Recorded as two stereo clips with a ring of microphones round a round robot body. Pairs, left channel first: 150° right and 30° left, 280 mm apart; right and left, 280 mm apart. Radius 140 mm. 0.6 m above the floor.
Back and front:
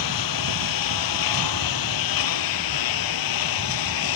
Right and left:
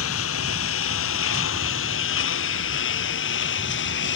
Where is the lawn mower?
135° right; by 4.2 s 140° right.